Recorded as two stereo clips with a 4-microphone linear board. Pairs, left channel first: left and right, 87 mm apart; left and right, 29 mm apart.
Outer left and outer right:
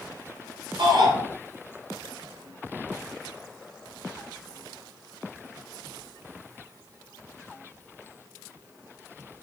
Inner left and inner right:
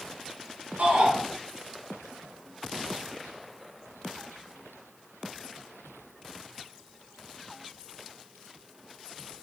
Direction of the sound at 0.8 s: 70° right (ahead or behind).